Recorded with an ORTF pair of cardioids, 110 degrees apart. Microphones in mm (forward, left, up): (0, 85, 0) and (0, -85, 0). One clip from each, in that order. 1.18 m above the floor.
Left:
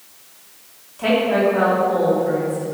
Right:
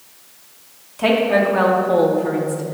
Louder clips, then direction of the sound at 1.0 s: Right 1 dB; 30° right.